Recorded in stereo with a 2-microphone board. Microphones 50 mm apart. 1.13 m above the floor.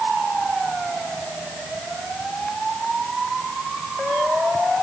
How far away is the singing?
I don't hear singing.